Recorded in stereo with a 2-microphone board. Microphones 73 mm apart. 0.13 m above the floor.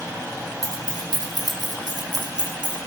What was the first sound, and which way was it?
Keys jangling, 55° right (ahead or behind).